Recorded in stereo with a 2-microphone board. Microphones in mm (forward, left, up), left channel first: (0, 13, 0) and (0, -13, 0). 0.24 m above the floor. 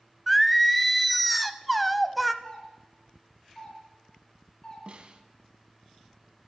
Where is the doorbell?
20° left (ahead or behind), 4 m.